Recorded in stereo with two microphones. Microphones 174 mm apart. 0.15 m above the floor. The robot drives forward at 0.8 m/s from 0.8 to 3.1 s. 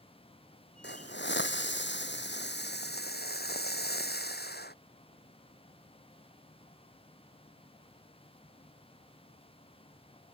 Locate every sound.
0.8 s a hiss: 75° left (ahead or behind); by 4.8 s 65° left (ahead or behind)